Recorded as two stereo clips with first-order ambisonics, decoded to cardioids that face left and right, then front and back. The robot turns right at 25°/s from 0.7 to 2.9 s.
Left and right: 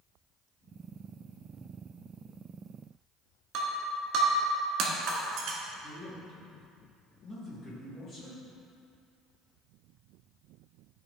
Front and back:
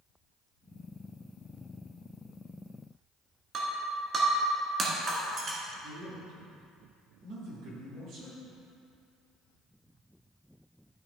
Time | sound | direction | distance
3.5 | breaking glass | 120° right | 1.6 m
5.8 | a man speaking | 150° left | 3 m